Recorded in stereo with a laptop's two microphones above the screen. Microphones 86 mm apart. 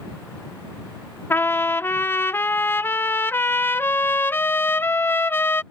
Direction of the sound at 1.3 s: 25° left (ahead or behind).